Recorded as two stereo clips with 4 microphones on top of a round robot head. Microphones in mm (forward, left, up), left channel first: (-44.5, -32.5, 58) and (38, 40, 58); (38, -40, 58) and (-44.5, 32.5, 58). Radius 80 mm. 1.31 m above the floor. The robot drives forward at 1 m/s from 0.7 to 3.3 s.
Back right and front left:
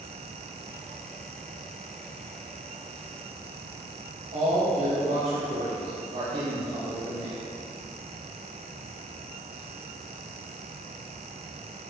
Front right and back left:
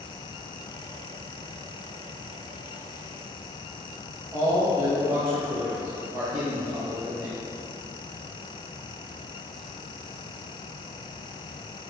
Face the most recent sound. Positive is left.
turn(degrees=75)